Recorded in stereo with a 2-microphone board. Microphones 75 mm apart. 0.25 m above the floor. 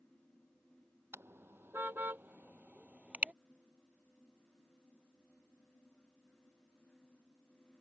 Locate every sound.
1.1 s a car horn: 30° right (ahead or behind); by 3.3 s 15° right (ahead or behind)